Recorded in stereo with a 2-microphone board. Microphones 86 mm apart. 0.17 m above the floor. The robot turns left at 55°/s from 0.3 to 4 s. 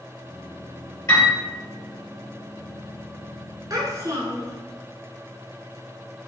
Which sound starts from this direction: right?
A child speaking, at 3.7 s.